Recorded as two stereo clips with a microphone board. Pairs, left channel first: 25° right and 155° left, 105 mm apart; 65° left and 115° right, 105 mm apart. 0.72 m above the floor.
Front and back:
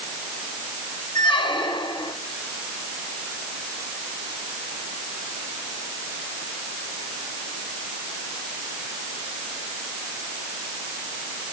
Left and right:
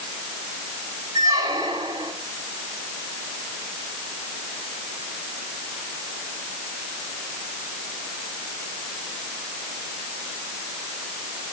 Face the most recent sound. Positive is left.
turn(degrees=-60)